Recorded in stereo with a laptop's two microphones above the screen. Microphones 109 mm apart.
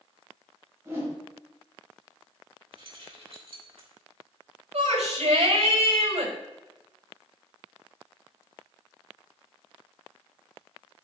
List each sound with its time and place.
0.8 s a whoosh: 25° right (ahead or behind), 4 m
2.7 s keys jangling: 65° right (ahead or behind), 2 m
4.7 s a shout: 85° right, 5 m